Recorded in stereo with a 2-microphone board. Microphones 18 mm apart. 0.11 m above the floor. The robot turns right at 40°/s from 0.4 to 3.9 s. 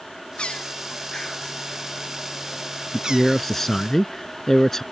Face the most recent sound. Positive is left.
turn(degrees=20)  # may be behind; listen again after turning